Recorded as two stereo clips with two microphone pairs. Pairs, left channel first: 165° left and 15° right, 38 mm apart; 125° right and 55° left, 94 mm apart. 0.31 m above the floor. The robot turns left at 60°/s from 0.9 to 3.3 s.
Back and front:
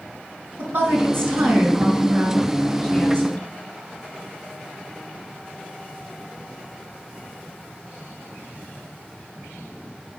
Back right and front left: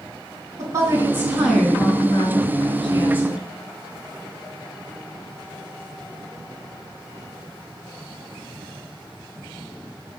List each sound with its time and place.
0.6 s a woman speaking: straight ahead, 3 m; by 3.4 s 145° right, 3 m